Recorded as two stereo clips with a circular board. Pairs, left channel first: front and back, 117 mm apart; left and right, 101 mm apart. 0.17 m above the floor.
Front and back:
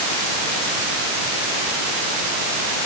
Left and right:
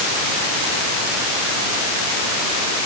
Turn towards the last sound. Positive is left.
No sound to turn to.